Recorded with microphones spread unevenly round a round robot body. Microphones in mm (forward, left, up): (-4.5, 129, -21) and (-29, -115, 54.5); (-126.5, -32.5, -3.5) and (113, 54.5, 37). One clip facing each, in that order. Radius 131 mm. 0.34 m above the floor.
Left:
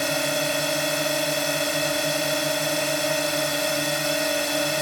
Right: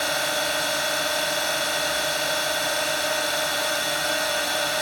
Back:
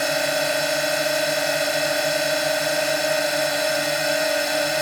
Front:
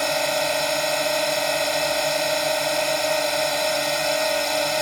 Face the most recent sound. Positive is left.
turn(degrees=125)